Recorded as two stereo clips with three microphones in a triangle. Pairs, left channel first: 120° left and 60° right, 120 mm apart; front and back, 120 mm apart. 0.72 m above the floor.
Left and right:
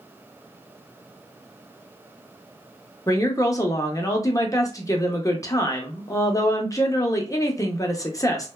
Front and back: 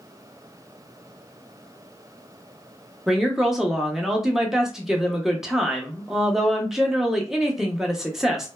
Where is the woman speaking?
95° left, 0.6 m.